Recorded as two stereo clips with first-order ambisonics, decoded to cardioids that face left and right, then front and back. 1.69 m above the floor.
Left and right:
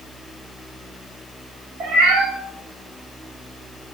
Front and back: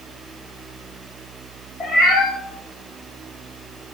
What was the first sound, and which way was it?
A cat meowing, 70° right.